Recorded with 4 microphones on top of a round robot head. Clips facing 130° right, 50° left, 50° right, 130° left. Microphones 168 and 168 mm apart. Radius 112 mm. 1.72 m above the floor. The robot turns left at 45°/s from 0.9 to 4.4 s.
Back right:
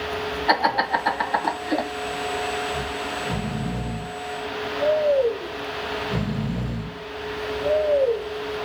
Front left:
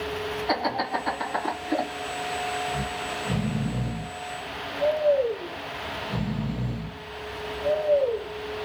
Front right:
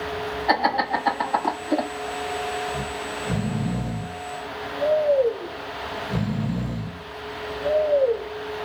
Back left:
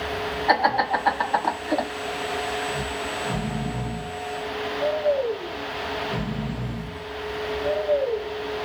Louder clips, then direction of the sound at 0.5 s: Back right 5 dB, back left 1 dB; 125° right.